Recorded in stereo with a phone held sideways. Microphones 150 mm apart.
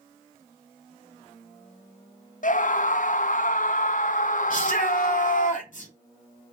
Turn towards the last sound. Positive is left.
turn(degrees=60)  # may be behind; listen again after turning